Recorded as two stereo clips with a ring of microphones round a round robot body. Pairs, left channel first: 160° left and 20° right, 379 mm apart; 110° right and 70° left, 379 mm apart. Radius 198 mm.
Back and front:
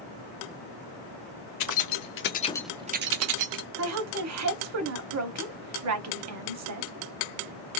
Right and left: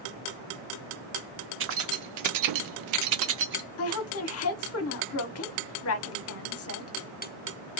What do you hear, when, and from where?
1.6 s keys jangling: 125° left, 0.9 m; by 3.6 s 5° left, 0.8 m
3.8 s a woman speaking: 65° right, 1.1 m